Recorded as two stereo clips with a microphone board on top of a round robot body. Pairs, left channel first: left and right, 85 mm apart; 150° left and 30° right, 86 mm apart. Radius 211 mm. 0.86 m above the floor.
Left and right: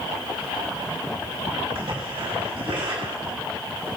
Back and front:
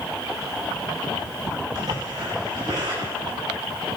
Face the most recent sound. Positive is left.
turn(degrees=-75)